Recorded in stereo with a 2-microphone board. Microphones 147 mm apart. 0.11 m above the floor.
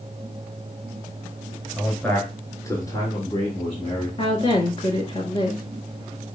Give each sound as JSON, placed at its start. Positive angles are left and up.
{"t": 1.8, "sound": "a man speaking", "side_deg": 0, "distance_m": 1.3}
{"t": 4.2, "sound": "a woman speaking", "side_deg": 35, "distance_m": 1.3}